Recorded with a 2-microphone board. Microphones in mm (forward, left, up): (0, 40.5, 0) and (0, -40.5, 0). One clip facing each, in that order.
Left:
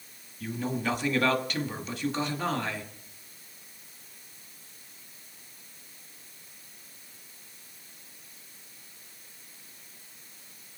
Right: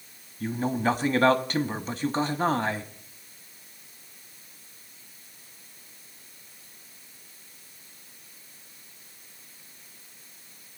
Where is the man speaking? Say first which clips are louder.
Right 5 dB; 35° right (ahead or behind), 1.4 m.